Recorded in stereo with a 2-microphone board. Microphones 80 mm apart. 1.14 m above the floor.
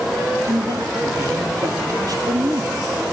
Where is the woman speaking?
55° right (ahead or behind), 2.5 m.